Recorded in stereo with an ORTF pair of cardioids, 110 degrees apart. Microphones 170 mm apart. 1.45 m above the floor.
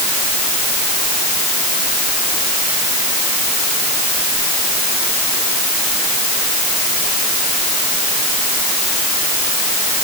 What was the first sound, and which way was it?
Only background noise.